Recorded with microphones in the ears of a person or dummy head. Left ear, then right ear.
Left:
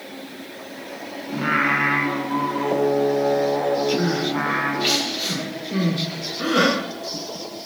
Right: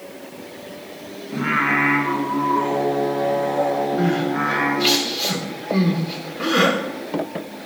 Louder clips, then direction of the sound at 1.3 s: Right 1 dB; centre (ahead or behind).